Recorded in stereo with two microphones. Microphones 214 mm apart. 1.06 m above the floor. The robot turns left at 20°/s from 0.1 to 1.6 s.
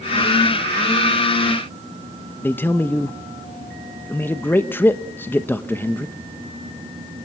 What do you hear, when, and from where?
2.4 s a man speaking: 10° left (ahead or behind), 1.0 m